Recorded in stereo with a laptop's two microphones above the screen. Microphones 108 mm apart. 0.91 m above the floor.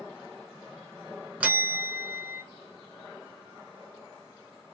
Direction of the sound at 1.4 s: 10° right (ahead or behind).